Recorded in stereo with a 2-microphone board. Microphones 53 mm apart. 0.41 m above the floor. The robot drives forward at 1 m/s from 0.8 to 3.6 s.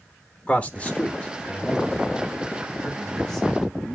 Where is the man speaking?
25° left (ahead or behind), 0.8 m; by 4.0 s 5° left (ahead or behind), 3 m.